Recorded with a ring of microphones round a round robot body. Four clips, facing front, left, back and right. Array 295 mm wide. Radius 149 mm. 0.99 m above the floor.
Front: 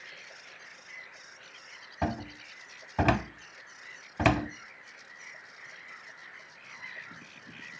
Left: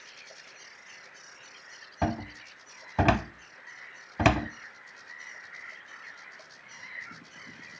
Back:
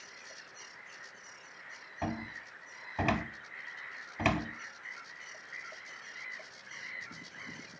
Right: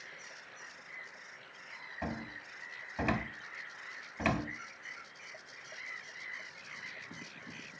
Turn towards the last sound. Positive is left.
turn(degrees=65)